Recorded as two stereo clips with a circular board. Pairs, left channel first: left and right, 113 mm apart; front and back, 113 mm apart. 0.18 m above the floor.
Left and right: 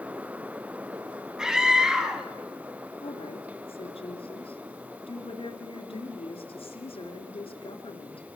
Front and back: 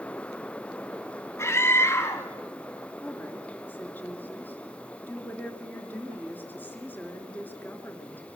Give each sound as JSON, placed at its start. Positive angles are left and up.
{"t": 1.4, "sound": "a scream", "azimuth_deg": -15, "distance_m": 1.4}
{"t": 3.0, "sound": "a woman speaking", "azimuth_deg": 70, "distance_m": 3.0}